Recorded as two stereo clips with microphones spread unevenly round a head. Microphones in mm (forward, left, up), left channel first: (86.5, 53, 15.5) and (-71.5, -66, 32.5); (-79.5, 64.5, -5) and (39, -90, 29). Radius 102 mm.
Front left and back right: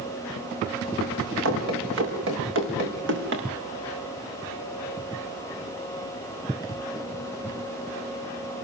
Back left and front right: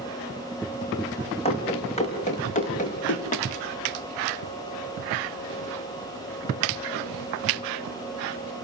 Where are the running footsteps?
170° right, 6 m; by 3.5 s straight behind, 6 m.